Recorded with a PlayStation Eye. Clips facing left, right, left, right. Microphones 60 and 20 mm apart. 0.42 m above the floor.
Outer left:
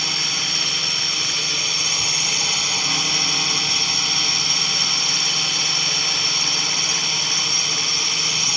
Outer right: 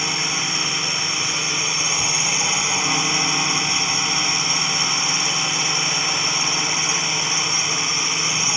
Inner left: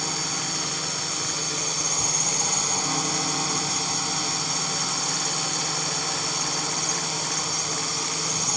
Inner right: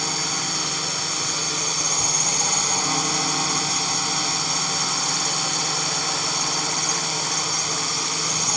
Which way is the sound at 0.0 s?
20° right (ahead or behind).